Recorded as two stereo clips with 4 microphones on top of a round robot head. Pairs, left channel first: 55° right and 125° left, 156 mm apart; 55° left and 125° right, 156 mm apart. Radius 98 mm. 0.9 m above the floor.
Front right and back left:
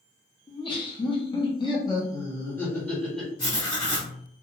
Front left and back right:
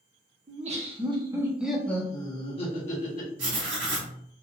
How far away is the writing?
About 1.7 m.